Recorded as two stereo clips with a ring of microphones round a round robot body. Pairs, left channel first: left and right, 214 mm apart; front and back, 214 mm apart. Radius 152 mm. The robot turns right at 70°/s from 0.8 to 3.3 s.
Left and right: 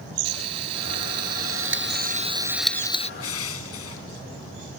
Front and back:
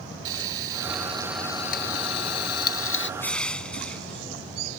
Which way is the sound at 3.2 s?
80° left.